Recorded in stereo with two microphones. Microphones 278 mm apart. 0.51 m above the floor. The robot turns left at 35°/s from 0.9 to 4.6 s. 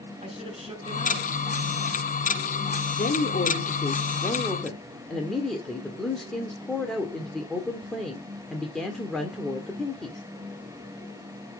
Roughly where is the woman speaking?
Ahead left.